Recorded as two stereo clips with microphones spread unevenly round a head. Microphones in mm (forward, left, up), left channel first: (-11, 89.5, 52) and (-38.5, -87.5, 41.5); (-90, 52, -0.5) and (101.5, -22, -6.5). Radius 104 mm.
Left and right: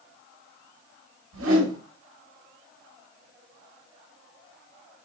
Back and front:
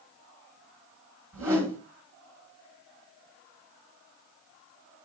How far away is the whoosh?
About 3 m.